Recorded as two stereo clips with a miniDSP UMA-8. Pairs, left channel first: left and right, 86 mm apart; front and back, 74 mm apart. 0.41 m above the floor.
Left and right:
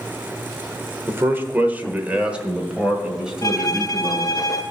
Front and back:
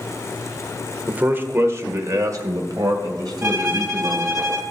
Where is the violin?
135° left, 1.4 m.